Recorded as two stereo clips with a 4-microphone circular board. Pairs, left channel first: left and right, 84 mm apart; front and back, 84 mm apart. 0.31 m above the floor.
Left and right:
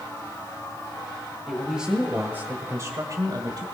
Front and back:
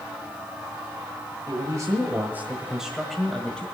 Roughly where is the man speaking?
Behind.